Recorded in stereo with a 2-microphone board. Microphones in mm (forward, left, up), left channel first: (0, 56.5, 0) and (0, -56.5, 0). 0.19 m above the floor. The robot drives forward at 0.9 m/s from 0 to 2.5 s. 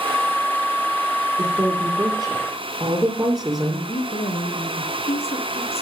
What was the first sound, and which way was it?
A woman speaking, 30° right (ahead or behind).